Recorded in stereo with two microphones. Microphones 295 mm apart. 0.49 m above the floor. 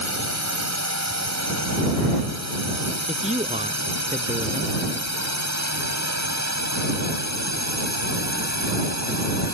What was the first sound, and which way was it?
A drone, 60° right (ahead or behind).